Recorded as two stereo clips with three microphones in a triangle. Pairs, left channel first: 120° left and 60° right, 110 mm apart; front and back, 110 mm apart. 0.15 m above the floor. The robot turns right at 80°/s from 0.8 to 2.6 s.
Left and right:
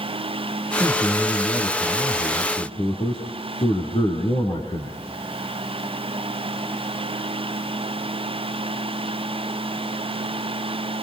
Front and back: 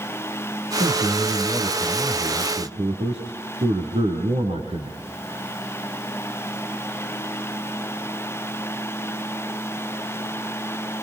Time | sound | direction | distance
0.8 | a man speaking | 10° left | 4.5 m